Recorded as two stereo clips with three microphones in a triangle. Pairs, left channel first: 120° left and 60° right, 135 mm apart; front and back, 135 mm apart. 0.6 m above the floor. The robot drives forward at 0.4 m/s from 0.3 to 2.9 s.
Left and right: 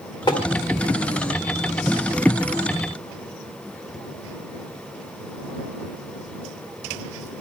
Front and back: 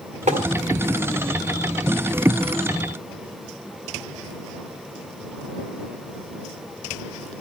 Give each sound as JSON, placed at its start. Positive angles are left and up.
{"t": 0.3, "sound": "tapping", "azimuth_deg": 170, "distance_m": 2.0}